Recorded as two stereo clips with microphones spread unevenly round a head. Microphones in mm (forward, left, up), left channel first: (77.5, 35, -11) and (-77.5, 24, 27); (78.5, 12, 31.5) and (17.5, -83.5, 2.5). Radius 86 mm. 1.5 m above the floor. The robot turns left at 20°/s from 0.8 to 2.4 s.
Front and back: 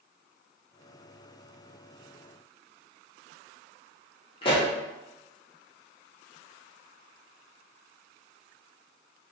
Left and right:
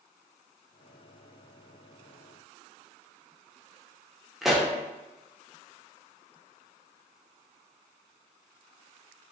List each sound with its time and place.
4.4 s a pop: 45° right, 0.5 m